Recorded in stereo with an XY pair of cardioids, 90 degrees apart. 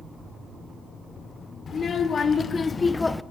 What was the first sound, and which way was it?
A child speaking, 50° left.